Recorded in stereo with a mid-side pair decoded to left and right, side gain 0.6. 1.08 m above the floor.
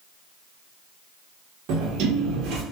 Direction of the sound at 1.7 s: 70° right.